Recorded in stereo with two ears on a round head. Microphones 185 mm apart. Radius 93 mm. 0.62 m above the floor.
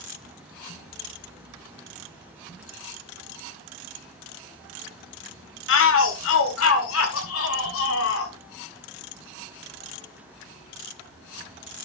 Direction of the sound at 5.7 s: 65° left (ahead or behind).